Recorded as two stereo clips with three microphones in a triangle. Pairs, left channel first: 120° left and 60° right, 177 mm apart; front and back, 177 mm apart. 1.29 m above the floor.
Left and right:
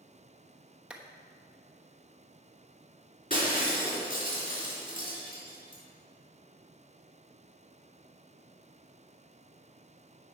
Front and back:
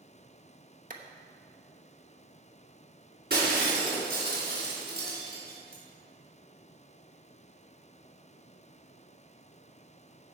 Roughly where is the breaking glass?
Behind left.